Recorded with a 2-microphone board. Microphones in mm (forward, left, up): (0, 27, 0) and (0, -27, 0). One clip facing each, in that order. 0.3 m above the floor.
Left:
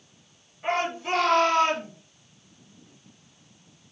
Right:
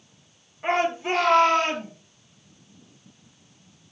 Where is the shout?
25° right (ahead or behind), 4.5 m; by 1.9 s 30° right (ahead or behind), 5.5 m.